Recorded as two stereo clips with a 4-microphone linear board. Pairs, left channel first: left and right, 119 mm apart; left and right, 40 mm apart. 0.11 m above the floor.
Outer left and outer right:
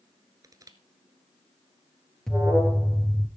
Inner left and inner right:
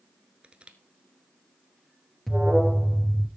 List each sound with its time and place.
0.4 s crushing: 30° right (ahead or behind), 1.2 m
2.3 s an alarm: 5° left (ahead or behind), 2 m